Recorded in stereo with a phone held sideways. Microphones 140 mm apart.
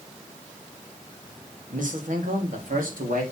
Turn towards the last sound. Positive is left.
turn(degrees=-80)